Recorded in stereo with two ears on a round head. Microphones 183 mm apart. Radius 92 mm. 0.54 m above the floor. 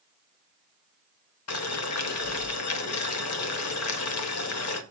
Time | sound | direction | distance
1.5 | boiling | 80° left | 0.9 m